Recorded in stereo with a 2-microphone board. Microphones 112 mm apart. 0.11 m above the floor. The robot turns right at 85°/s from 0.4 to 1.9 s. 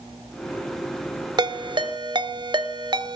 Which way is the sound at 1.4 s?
40° right (ahead or behind).